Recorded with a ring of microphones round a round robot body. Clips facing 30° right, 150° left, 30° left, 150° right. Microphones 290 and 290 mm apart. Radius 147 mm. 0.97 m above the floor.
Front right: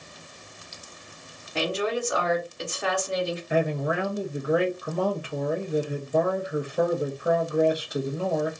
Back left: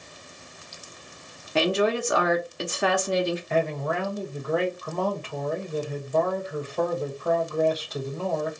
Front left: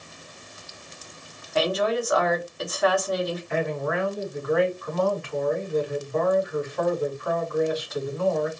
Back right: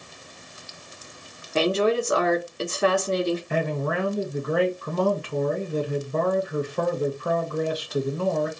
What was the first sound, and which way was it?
A woman speaking, 155° left.